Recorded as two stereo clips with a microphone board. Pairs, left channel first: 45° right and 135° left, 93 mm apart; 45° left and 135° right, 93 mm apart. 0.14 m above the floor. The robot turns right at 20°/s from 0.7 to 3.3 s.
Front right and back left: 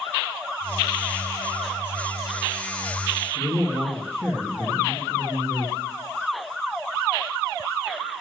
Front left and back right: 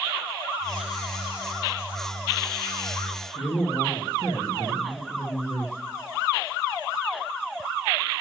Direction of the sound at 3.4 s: 15° left.